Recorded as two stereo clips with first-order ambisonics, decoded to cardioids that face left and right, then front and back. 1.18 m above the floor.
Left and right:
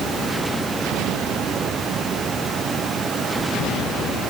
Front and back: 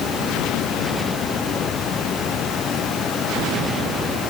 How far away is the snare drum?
No snare drum in this recording.